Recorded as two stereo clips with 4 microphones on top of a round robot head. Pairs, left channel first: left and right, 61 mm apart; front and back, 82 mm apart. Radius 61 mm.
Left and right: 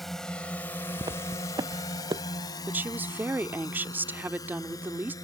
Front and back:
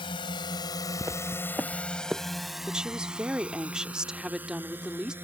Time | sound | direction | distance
0.0 | a drone | straight ahead | ?
1.0 | footsteps | 110° right | ?
2.7 | a woman speaking | 110° right | ?